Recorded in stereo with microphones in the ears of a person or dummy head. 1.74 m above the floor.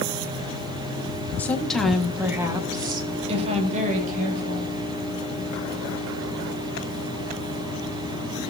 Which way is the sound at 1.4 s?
10° left (ahead or behind).